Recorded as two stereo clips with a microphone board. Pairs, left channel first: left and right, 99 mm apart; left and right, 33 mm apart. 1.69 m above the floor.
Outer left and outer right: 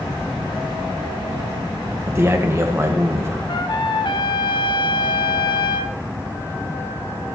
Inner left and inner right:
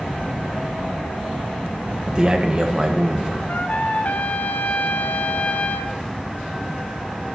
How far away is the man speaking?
About 1.7 m.